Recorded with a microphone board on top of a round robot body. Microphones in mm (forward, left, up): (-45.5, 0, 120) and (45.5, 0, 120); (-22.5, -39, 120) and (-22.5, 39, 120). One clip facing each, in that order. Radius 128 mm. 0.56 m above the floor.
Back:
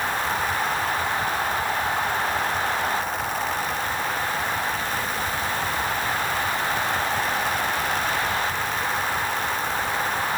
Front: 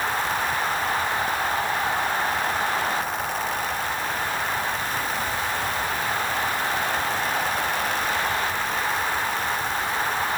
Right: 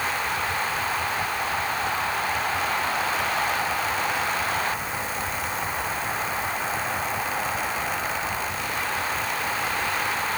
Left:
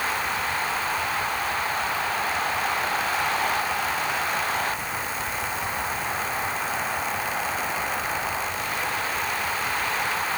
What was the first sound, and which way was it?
Only background noise.